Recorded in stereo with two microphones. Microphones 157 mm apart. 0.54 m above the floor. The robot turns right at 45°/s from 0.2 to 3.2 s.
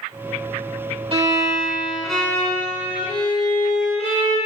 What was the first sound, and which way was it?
A violin, 45° right.